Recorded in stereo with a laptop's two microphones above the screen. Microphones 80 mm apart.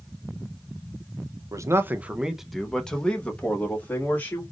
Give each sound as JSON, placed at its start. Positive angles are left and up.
{"t": 1.5, "sound": "a man speaking", "side_deg": -40, "distance_m": 0.5}